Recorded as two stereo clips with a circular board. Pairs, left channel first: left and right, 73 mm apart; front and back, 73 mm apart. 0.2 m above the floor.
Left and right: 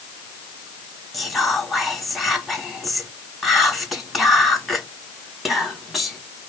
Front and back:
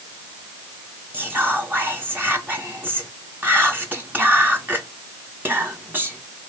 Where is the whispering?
Straight behind, 1.5 m.